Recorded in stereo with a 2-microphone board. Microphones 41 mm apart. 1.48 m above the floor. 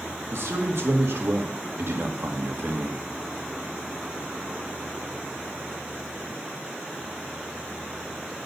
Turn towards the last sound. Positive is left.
turn(degrees=-75)  # may be behind; listen again after turning